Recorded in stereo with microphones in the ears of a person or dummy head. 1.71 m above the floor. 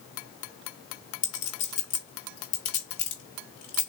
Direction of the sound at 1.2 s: 30° left (ahead or behind).